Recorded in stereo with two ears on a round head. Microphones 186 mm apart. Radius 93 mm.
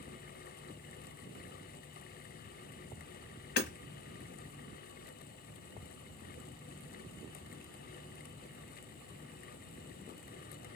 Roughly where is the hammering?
Left.